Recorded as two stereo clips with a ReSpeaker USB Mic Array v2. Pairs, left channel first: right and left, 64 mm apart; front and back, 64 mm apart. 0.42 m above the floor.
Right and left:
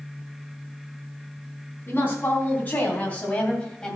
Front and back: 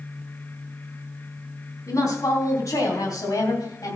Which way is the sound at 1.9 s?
35° right.